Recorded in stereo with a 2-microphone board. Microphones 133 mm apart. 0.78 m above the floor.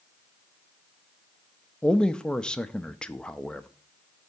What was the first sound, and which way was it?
A man speaking, 5° left (ahead or behind).